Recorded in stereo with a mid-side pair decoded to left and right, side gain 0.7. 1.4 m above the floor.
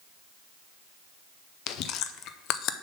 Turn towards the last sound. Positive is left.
turn(degrees=55)